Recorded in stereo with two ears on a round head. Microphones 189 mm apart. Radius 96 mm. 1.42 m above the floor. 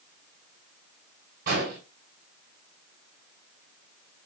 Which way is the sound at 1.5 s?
55° right (ahead or behind).